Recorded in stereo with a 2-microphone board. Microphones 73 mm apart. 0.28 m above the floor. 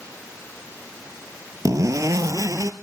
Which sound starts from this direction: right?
A zipper, at 1.6 s.